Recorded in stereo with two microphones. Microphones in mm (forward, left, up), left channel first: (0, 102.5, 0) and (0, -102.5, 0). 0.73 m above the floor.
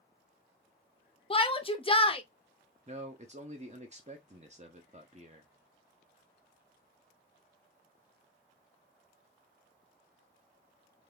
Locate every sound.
1.3 s a shout: 25° left (ahead or behind), 0.6 m
2.9 s a man speaking: 35° right (ahead or behind), 0.6 m